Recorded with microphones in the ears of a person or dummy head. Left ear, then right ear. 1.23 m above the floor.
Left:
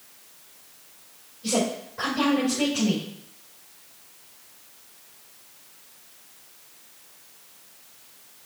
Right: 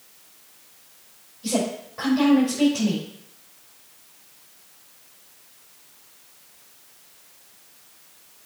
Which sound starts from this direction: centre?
A woman speaking, at 1.4 s.